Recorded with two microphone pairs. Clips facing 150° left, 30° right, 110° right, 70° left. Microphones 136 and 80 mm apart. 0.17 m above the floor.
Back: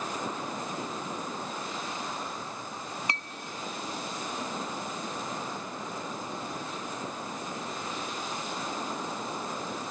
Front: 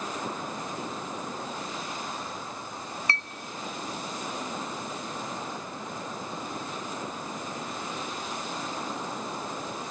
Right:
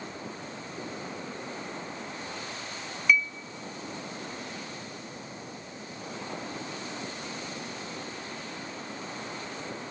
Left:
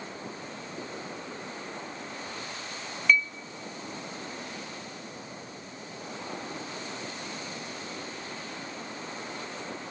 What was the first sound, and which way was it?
A clink, straight behind.